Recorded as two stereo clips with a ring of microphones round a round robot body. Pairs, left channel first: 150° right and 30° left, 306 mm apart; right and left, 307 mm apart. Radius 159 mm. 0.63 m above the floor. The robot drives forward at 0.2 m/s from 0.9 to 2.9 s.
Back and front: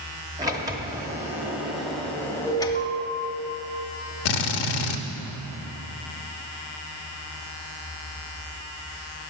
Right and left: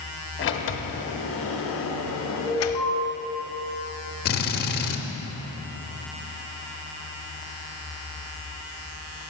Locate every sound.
0.4 s a sliding door: 45° right, 0.9 m; by 2.9 s 80° right, 0.7 m
2.5 s an alarm: 140° left, 3.5 m; by 2.9 s 145° left, 3.5 m
4.2 s a drill: 150° right, 0.7 m